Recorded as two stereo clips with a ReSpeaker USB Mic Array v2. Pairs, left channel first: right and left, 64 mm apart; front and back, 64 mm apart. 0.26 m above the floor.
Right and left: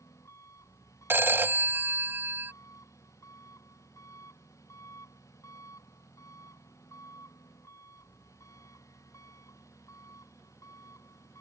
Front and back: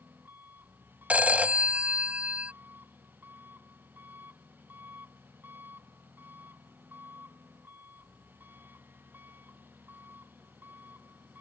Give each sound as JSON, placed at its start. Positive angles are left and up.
{"t": 0.0, "sound": "an engine running", "azimuth_deg": -120}
{"t": 1.1, "sound": "a phone ringing", "azimuth_deg": 125}